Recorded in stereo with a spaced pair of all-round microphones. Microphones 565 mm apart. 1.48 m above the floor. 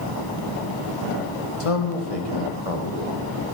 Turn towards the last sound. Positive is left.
turn(degrees=85)